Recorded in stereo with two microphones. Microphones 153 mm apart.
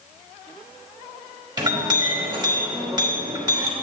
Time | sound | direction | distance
1.6 | a clink | 30° right (ahead or behind) | 1.2 m